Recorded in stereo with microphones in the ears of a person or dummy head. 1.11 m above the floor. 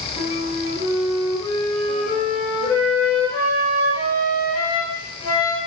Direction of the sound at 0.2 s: 45° left (ahead or behind).